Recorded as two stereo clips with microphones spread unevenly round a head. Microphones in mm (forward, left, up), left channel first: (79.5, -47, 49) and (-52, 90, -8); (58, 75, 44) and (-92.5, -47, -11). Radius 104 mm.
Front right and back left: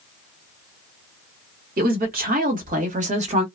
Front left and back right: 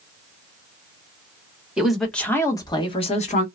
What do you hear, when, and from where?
1.8 s a woman speaking: 145° left, 1.4 m; by 3.5 s 95° left, 1.4 m